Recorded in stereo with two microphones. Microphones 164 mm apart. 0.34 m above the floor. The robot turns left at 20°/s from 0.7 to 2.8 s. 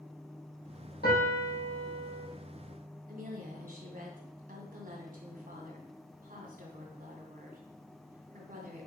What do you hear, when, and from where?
1.0 s a piano: 75° left (ahead or behind), 4.5 m; by 2.3 s 50° left (ahead or behind), 4.5 m
3.1 s a woman speaking: 60° right (ahead or behind), 2 m